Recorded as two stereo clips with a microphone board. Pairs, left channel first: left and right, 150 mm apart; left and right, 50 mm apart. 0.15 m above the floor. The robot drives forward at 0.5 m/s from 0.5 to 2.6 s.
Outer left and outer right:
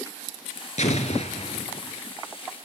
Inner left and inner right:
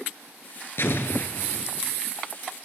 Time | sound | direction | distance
0.8 | an explosion | 60° left (ahead or behind) | 0.9 m